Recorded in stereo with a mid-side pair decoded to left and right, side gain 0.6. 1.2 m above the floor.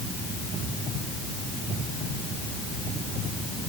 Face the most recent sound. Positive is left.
No sound to turn to.